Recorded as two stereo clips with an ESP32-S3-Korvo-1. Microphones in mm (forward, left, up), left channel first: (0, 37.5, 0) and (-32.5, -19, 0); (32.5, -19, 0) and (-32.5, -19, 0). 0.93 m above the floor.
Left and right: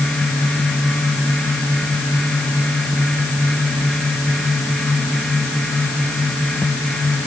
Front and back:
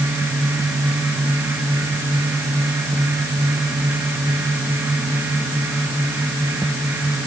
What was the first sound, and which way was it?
Only background noise.